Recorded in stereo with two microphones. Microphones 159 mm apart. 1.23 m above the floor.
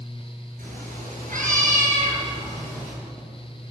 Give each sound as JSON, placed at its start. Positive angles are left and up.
{"t": 0.6, "sound": "a cat meowing", "side_deg": -60, "distance_m": 8.5}